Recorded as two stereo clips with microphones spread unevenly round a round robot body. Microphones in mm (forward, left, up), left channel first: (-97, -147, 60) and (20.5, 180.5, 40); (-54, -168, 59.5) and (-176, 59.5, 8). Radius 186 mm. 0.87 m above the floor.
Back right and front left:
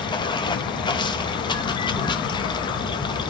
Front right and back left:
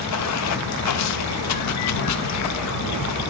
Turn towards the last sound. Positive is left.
turn(degrees=-30)